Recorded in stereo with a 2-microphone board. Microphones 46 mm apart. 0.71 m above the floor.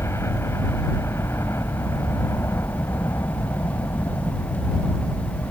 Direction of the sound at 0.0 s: 70° left (ahead or behind).